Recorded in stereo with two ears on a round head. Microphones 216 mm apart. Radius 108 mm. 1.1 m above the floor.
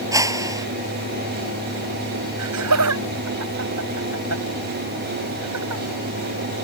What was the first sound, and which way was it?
A whoosh, 15° right (ahead or behind).